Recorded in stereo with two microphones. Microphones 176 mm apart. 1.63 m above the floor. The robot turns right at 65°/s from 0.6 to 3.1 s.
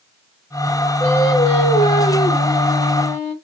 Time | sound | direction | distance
1.0 | singing | straight ahead | 0.9 m